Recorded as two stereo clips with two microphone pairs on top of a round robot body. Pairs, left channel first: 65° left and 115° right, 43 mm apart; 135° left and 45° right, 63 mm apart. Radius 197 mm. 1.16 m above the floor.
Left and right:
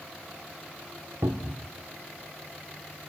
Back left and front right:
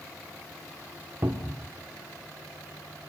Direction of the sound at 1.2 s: 125° right.